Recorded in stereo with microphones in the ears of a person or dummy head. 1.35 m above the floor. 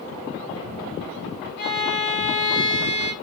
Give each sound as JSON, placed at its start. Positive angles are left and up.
{"t": 1.6, "sound": "a violin", "side_deg": 55, "distance_m": 2.5}